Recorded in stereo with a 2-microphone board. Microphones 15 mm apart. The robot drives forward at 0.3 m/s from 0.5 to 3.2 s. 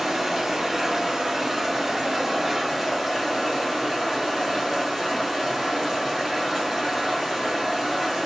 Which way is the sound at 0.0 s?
40° right (ahead or behind).